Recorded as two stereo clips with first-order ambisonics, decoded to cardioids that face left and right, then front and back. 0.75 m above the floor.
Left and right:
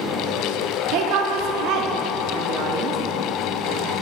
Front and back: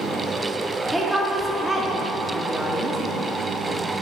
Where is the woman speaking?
95° right, 1.0 m.